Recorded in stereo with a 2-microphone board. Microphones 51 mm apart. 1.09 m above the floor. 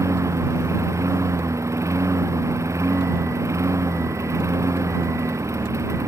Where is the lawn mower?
80° right.